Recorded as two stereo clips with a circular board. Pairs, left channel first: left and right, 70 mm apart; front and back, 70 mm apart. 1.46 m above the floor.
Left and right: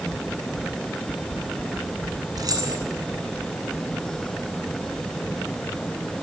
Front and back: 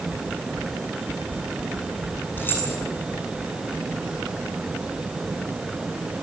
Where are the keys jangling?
60° right, 9.5 m.